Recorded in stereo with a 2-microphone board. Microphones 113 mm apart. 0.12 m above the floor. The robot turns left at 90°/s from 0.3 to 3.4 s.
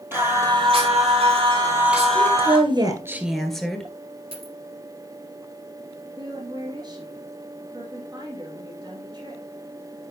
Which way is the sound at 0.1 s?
20° right.